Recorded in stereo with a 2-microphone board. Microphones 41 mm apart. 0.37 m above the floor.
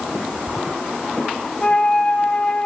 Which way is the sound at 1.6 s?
30° left (ahead or behind).